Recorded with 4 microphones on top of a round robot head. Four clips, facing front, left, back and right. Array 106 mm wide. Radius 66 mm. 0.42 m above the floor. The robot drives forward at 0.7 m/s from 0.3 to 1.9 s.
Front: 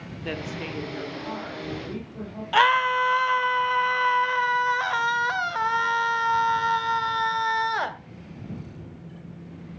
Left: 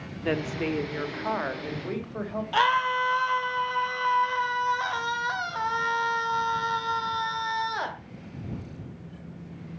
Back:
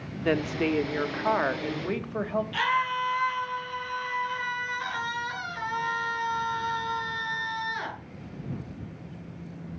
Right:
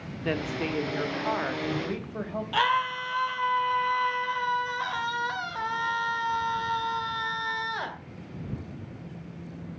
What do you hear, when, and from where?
0.2 s a woman speaking: 160° left, 0.9 m; by 2.4 s 175° left, 1.8 m
2.5 s a scream: 10° left, 2.0 m